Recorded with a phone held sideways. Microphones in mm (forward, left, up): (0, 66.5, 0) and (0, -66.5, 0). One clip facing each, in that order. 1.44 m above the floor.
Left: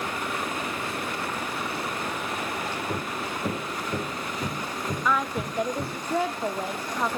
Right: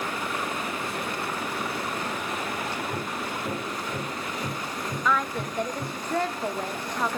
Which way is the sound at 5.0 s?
5° left (ahead or behind).